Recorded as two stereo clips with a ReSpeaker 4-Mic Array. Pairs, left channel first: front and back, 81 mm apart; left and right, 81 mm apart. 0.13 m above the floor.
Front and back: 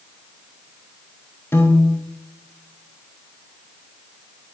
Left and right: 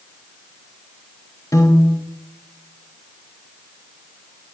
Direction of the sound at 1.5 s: 55° left.